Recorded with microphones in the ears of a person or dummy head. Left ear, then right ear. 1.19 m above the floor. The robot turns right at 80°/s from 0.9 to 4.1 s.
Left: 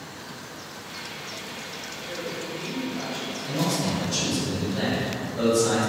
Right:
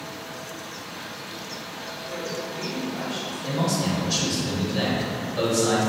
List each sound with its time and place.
2.1 s a woman speaking: 150° left, 0.8 m; by 3.8 s 75° right, 0.8 m
3.5 s a man speaking: 95° right, 1.9 m; by 5.9 s 45° right, 1.9 m